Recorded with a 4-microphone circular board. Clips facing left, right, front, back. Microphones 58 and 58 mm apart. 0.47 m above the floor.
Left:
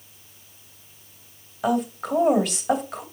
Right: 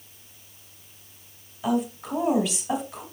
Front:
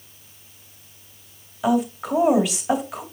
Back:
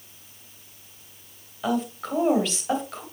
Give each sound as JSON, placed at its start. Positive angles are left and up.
{"t": 1.6, "sound": "a woman speaking", "azimuth_deg": 80, "distance_m": 2.0}